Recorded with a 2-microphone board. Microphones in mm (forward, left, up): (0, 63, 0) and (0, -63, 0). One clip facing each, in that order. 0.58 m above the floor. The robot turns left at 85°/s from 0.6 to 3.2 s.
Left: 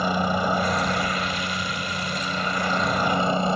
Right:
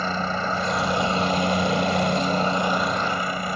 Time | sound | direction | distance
0.0 | a helicopter | 15° left | ?